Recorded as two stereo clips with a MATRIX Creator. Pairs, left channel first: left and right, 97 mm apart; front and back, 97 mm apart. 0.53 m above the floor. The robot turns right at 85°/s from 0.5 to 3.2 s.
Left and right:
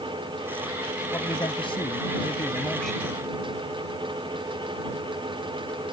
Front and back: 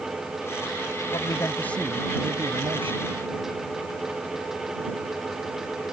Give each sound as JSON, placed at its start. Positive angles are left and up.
{"t": 1.1, "sound": "a man speaking", "azimuth_deg": 25}